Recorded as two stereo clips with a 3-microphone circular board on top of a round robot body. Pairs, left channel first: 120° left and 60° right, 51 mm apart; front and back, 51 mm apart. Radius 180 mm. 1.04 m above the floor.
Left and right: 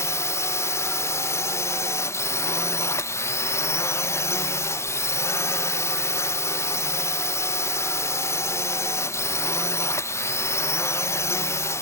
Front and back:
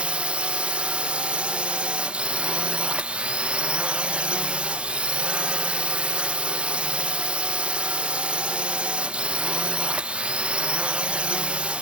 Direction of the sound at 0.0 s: 115° left.